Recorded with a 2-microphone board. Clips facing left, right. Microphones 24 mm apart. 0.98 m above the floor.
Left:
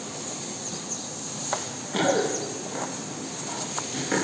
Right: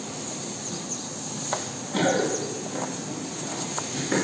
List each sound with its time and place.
1.5 s running footsteps: 40° left (ahead or behind), 4.5 m; by 4.2 s 35° left (ahead or behind), 6 m